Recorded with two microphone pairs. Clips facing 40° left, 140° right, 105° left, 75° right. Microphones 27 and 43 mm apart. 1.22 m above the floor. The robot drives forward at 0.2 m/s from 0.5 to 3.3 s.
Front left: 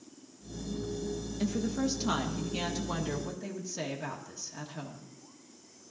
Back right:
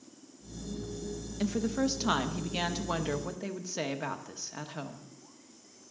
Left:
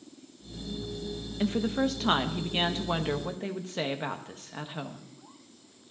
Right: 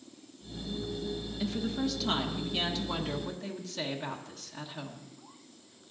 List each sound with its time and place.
1.4 s a woman speaking: 150° left, 1.0 m; by 5.1 s 155° left, 1.3 m